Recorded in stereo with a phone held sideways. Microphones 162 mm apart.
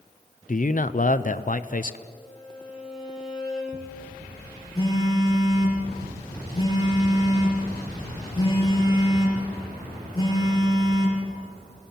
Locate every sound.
0.5 s a man speaking: 55° left (ahead or behind), 0.7 m
2.1 s a violin: 5° right (ahead or behind), 6.5 m
4.8 s a phone buzzing: 30° left (ahead or behind), 6.5 m